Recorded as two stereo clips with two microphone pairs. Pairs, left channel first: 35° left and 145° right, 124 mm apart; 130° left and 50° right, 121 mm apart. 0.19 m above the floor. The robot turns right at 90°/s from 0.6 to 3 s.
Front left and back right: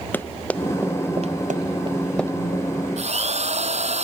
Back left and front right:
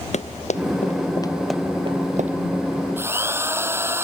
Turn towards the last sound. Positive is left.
turn(degrees=-120)